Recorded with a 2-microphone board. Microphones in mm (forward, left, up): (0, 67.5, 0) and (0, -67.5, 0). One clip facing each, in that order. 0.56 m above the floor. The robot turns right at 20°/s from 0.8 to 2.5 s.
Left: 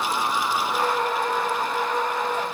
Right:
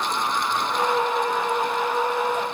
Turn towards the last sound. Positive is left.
No sound to turn to.